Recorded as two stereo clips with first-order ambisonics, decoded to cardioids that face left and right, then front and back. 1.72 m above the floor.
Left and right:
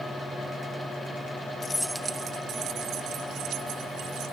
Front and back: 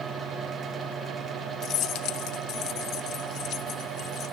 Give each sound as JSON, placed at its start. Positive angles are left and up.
{"t": 1.6, "sound": "keys jangling", "azimuth_deg": 40}